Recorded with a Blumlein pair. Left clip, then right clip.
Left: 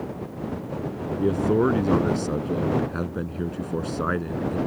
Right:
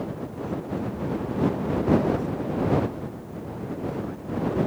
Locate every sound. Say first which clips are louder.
1.2 s a man speaking: left 8 dB; 50° left